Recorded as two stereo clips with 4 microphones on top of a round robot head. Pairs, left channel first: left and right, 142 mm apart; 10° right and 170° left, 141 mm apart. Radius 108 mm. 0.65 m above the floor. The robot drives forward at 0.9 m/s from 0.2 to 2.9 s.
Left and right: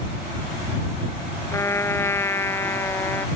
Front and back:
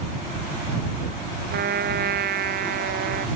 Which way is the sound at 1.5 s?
160° left.